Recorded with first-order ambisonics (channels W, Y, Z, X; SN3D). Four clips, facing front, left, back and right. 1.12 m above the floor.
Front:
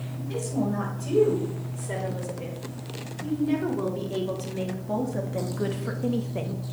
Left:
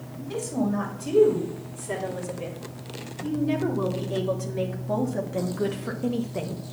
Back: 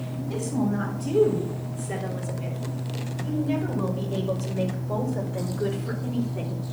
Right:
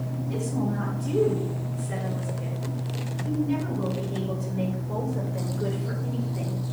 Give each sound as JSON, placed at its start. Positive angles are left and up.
{"t": 0.2, "sound": "a woman speaking", "azimuth_deg": 55, "distance_m": 5.0}